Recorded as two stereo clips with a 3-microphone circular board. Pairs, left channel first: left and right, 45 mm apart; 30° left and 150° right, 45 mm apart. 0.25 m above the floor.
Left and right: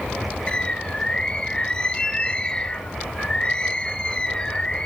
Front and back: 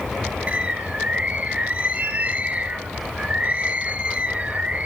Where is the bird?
155° left, 0.6 m.